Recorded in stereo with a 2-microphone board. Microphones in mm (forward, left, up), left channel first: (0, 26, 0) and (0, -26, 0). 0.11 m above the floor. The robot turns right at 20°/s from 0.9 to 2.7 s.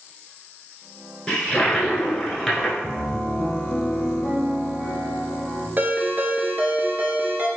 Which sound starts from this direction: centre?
A toilet flushing, at 1.3 s.